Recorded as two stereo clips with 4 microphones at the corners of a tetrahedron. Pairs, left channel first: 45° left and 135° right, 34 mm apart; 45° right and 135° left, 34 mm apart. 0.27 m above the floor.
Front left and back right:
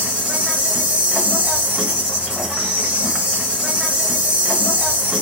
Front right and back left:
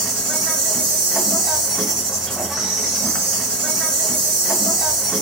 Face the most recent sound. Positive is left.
turn(degrees=-160)